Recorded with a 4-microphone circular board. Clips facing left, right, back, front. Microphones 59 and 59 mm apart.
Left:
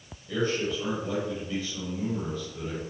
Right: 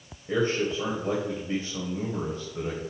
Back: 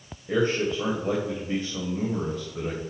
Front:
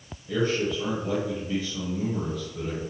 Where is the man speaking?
140° right, 2.0 m.